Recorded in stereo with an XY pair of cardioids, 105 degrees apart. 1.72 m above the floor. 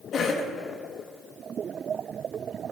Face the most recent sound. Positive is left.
turn(degrees=55)